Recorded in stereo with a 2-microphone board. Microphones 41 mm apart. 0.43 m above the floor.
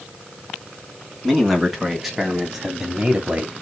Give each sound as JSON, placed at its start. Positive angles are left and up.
{"t": 1.2, "sound": "a man speaking", "side_deg": 5, "distance_m": 3.5}